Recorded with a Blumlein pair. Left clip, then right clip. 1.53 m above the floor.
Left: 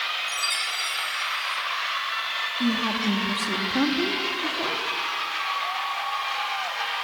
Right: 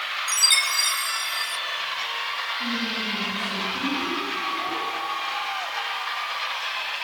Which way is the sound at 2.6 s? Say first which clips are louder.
Left 2 dB; 55° left.